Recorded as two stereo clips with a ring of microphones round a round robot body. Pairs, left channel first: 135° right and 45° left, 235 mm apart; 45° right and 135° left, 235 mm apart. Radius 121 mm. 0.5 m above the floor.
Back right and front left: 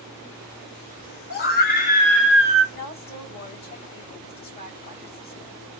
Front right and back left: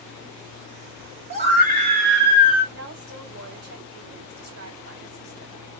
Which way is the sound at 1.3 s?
170° right.